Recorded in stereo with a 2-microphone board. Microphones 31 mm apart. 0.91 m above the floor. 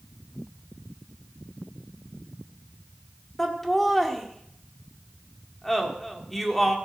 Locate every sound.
3.4 s laughter: 10° left (ahead or behind), 1.8 m